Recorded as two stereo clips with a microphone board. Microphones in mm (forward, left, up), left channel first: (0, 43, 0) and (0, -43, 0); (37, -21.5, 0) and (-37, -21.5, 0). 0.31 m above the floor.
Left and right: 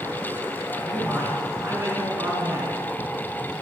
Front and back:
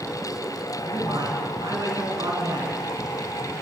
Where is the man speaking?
150° right, 3.5 m.